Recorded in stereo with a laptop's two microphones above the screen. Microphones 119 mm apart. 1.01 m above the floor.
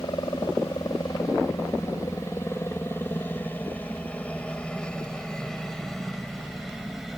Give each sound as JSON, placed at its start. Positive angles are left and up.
{"t": 0.0, "sound": "a helicopter", "side_deg": 35}